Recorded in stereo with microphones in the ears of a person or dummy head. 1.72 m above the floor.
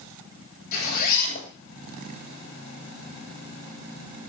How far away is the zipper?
About 9 m.